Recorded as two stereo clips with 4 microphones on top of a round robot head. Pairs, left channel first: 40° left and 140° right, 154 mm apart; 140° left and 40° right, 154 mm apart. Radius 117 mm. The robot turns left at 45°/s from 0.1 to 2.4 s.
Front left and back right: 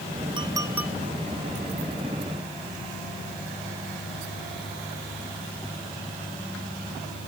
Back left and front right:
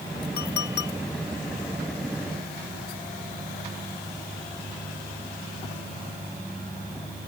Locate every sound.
0.4 s a clink: 160° left; by 0.9 s 135° left